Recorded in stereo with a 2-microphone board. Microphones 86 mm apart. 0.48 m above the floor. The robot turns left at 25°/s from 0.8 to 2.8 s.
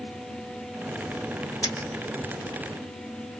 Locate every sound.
1.6 s a dropped coin: 55° left (ahead or behind), 2 m; by 1.9 s 60° left (ahead or behind), 2 m